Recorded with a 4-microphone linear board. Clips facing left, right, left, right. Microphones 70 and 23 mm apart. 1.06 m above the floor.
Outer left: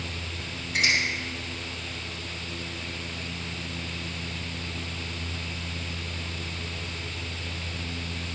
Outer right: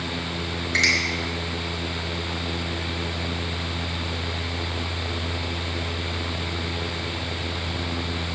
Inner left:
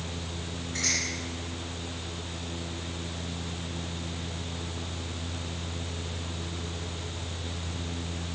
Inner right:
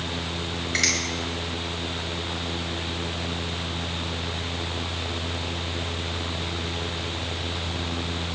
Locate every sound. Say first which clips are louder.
0.7 s a finger snap: outer right 3 dB, inner right 6 dB; 75° right (ahead or behind), 5.5 m